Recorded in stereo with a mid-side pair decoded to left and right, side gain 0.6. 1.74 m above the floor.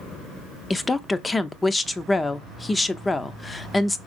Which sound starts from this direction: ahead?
A woman speaking, at 0.7 s.